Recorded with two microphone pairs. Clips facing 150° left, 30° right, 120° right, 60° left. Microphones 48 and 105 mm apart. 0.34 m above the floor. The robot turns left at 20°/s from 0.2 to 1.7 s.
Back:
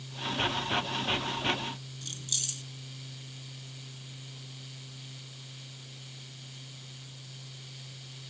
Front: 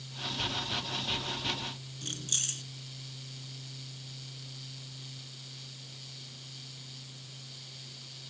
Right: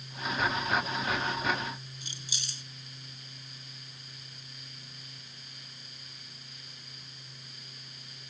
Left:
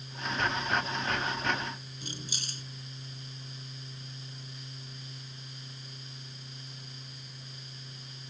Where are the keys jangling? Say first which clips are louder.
Front 4 dB, left 4 dB; 15° left.